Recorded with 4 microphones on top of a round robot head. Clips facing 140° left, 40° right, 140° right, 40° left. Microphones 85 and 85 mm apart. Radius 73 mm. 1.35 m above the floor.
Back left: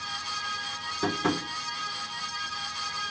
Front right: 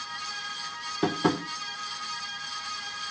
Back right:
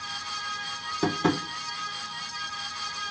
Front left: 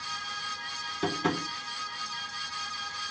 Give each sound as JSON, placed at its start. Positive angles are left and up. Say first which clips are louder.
{"t": 1.0, "sound": "tapping", "louder": "front right 2 dB, back right 4 dB", "azimuth_deg": -85, "distance_m": 1.2}